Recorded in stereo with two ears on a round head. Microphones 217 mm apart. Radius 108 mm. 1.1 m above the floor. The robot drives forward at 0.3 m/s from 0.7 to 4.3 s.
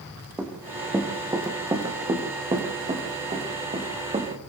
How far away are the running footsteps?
About 4 m.